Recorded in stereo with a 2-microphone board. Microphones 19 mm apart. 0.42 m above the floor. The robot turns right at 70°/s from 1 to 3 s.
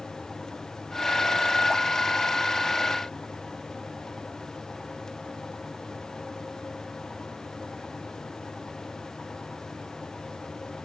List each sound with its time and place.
Only background noise.